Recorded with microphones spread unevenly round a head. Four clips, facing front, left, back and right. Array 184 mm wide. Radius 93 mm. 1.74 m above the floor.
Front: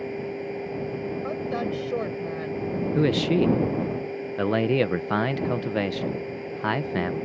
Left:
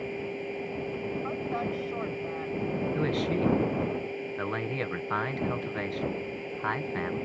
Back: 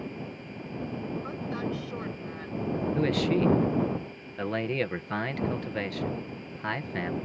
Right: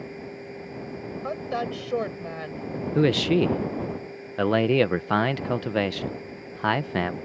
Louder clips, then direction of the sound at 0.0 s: Left 3 dB, front 8 dB; 20° left.